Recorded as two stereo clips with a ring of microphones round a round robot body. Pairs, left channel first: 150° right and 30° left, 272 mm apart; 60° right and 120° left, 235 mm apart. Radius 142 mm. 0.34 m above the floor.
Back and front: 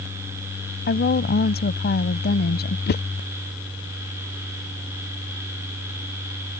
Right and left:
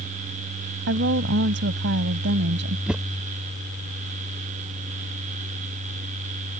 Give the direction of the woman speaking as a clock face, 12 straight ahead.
7 o'clock.